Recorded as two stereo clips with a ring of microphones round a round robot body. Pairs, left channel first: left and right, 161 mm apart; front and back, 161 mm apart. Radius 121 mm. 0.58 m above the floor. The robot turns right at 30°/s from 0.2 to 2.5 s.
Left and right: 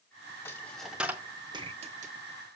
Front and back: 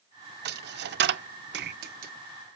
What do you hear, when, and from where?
0.5 s a dropped coin: 170° left, 0.5 m; by 2.1 s 140° right, 0.5 m